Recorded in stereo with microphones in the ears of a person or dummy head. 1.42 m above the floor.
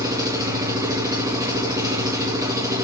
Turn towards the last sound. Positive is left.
turn(degrees=-20)  # may be behind; listen again after turning